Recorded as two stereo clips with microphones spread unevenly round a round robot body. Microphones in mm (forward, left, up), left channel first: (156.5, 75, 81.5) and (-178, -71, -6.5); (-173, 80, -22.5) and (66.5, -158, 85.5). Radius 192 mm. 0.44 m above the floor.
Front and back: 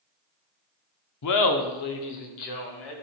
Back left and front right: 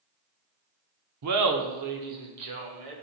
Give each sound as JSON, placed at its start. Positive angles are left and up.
{"t": 1.2, "sound": "laughter", "azimuth_deg": -5, "distance_m": 0.8}